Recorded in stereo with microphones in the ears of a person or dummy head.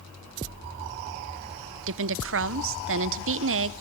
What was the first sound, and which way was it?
A woman speaking, 65° right (ahead or behind).